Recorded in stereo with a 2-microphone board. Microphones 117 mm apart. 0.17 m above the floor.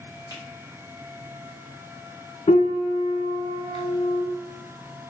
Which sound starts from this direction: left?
A piano, at 2.5 s.